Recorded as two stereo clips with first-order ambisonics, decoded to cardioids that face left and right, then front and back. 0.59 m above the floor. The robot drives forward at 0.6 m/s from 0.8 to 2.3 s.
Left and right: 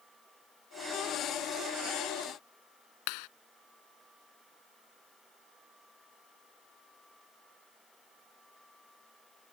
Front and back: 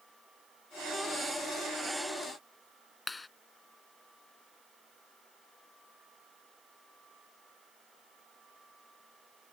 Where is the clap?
80° left.